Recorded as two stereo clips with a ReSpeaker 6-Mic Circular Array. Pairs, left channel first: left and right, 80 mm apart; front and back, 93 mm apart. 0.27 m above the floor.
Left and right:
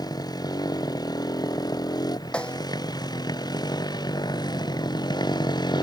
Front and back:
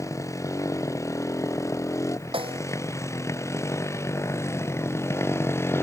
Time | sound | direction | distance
0.0 | a motorcycle | 55° left | ?
2.3 | a snare drum | 165° left | ?